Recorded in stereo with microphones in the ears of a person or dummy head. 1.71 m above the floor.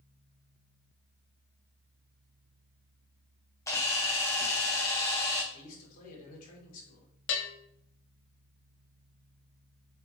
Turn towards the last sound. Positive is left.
turn(degrees=70)  # may be behind; listen again after turning